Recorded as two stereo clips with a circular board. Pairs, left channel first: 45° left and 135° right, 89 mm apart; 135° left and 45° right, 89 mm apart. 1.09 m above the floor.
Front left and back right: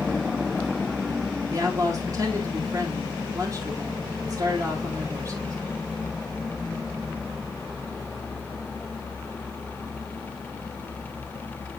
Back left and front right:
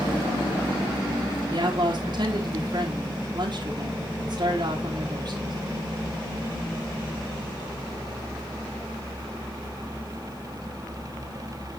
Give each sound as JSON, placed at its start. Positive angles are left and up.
{"t": 1.5, "sound": "a woman speaking", "azimuth_deg": -85, "distance_m": 1.6}